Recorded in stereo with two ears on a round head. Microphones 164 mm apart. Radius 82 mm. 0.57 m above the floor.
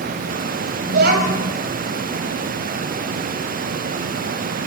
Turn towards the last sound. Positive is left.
turn(degrees=-60)  # may be behind; listen again after turning